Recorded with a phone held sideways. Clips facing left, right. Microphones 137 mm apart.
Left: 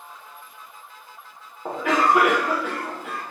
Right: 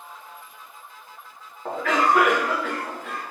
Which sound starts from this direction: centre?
A cough, at 1.6 s.